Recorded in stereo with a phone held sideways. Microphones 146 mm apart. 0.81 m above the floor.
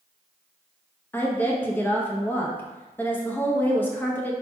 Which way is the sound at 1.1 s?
15° left (ahead or behind).